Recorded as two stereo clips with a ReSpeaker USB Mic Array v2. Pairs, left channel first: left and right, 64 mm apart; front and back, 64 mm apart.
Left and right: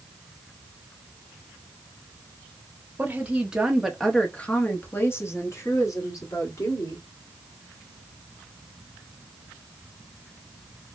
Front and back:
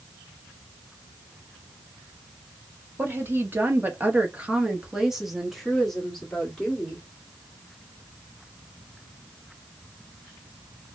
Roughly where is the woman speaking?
Behind right.